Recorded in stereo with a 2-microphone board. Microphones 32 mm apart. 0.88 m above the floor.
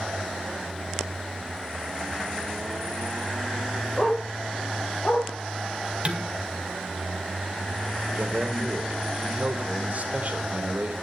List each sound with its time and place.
4.0 s a dog barking: 30° left (ahead or behind), 4.5 m; by 5.3 s 20° left (ahead or behind), 6 m
6.0 s dishes clattering: 35° right (ahead or behind), 2 m
8.2 s a man speaking: 55° right (ahead or behind), 2.5 m